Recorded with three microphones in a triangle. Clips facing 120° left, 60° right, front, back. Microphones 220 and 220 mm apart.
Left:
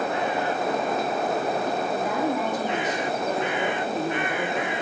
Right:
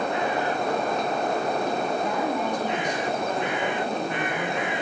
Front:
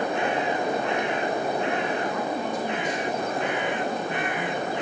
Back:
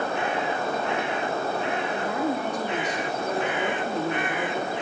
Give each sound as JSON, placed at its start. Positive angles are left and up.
{"t": 1.9, "sound": "a woman speaking", "azimuth_deg": -155, "distance_m": 4.0}